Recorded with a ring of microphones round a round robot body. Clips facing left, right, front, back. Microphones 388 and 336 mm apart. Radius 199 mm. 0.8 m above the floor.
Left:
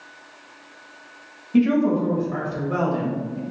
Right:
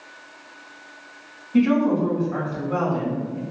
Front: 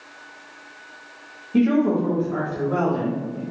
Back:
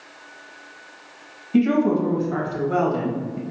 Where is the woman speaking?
140° left, 1.3 m.